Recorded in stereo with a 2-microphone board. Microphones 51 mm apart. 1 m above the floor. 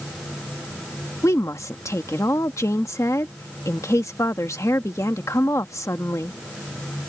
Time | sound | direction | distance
1.2 | a woman speaking | 75° left (ahead or behind) | ?